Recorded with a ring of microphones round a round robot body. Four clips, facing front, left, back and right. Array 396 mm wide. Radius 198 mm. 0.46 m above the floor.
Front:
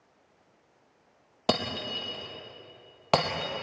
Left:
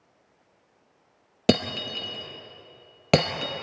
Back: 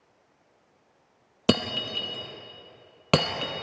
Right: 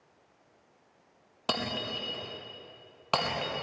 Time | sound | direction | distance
1.5 | breaking glass | 125° left | 2.5 m